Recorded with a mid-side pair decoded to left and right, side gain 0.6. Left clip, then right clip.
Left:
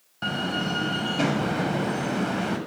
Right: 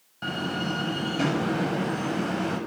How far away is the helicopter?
I don't hear a helicopter.